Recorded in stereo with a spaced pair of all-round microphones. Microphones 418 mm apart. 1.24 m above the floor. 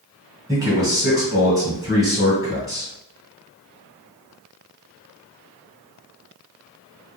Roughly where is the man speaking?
Centre.